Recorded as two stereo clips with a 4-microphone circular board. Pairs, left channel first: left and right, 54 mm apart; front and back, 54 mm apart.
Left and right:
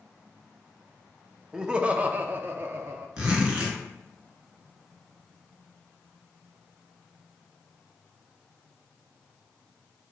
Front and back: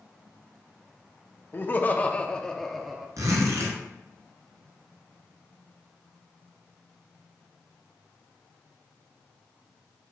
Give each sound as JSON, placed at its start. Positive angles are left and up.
{"t": 1.5, "sound": "laughter", "azimuth_deg": -20, "distance_m": 0.8}
{"t": 3.2, "sound": "a zipper", "azimuth_deg": -165, "distance_m": 1.9}